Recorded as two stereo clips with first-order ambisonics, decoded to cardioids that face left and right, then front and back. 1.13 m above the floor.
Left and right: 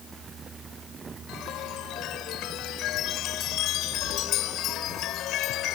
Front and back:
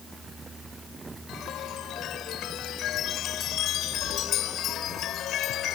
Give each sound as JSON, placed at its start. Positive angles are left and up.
{"t": 1.3, "sound": "a chime", "azimuth_deg": 50}